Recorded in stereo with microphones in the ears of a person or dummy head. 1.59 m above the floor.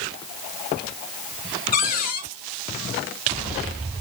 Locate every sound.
1.7 s a cupboard door: 50° left (ahead or behind), 1.2 m